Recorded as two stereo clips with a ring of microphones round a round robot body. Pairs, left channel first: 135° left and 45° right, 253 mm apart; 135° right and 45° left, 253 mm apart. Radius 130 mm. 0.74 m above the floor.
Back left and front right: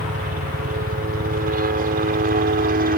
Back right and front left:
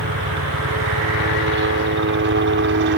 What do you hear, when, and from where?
0.0 s a helicopter: 10° left; by 3.0 s 5° left